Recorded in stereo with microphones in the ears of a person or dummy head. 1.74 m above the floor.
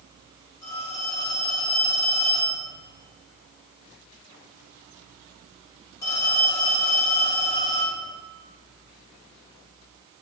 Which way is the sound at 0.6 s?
15° left (ahead or behind).